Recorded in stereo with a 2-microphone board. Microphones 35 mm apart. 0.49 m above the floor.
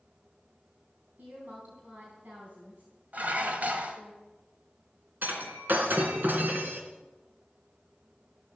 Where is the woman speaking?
60° right (ahead or behind), 3.5 m.